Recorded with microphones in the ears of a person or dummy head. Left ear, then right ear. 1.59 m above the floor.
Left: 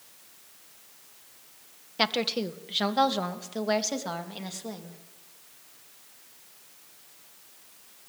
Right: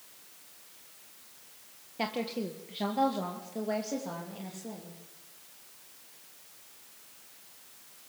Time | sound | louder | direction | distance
2.0 | a woman speaking | left 7 dB | 50° left (ahead or behind) | 1.6 m